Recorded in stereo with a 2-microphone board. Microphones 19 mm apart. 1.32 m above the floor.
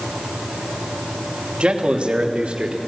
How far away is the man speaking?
About 2.0 m.